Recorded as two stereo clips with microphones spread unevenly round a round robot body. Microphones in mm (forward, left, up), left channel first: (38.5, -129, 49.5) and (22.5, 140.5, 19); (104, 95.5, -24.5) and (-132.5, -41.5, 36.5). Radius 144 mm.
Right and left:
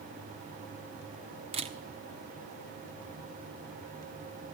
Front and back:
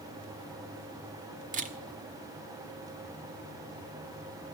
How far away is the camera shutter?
About 1.3 m.